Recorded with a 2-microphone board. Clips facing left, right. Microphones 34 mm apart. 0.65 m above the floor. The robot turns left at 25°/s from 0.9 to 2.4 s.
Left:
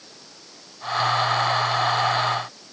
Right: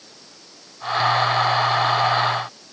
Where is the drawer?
No drawer in this recording.